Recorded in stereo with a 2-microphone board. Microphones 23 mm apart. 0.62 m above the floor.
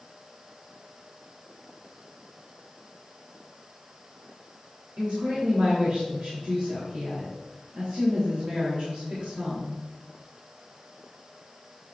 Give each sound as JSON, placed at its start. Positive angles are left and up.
{"t": 5.0, "sound": "a woman speaking", "side_deg": -70, "distance_m": 3.0}